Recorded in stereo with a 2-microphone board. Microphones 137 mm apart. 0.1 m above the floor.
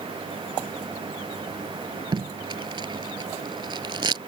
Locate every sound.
2.1 s tape being pulled: 35° right (ahead or behind)